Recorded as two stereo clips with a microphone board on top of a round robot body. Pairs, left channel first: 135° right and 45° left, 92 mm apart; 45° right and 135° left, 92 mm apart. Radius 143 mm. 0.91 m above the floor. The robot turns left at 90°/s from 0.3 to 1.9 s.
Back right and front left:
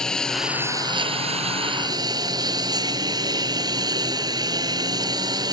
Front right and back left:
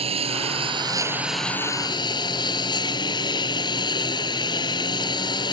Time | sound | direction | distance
0.0 | a lawn mower | 140° left | ?